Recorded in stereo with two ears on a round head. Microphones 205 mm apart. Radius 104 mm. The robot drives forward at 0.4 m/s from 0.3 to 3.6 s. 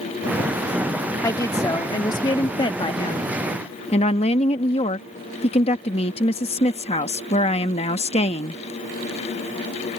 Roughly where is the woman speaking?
Centre.